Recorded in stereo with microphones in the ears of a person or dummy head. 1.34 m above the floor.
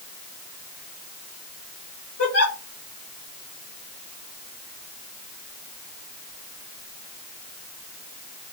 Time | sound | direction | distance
2.2 | a giggle | 70° left (ahead or behind) | 1.8 m